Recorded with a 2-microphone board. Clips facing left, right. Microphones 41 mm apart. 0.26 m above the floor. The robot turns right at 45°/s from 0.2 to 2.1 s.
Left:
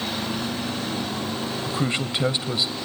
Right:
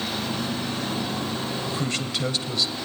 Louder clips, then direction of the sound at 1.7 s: Left 2 dB; 20° left (ahead or behind).